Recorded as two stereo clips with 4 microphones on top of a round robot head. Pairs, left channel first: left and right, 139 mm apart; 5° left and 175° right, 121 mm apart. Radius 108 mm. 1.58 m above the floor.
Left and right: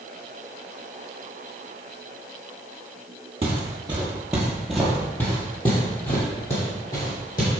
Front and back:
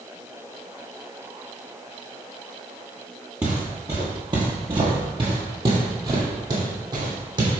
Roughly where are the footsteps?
Right.